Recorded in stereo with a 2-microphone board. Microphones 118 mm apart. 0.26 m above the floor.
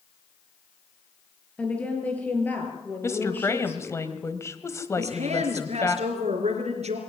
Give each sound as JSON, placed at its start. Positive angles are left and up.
{"t": 1.6, "sound": "a woman speaking", "side_deg": 10, "distance_m": 5.0}
{"t": 3.0, "sound": "a woman speaking", "side_deg": 25, "distance_m": 1.7}
{"t": 5.0, "sound": "a woman speaking", "side_deg": -65, "distance_m": 4.0}